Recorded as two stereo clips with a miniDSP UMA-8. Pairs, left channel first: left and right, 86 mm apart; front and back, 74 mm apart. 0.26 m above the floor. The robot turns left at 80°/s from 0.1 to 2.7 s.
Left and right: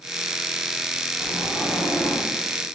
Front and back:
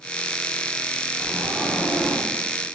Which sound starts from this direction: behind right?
A sliding door, at 1.2 s.